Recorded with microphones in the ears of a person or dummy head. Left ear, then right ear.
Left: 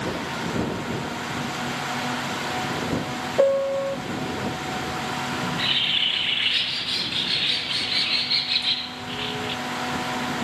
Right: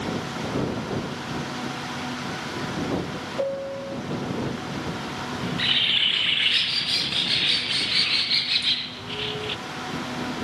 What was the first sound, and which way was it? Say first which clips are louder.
A piano: left 9 dB; 45° left (ahead or behind).